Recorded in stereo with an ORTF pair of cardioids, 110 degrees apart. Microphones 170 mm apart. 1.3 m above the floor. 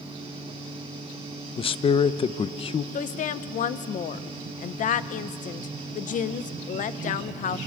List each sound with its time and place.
0.0 s a fan: 35° right, 6.5 m
1.6 s a man speaking: 30° left, 0.9 m
2.9 s a woman speaking: 50° left, 1.0 m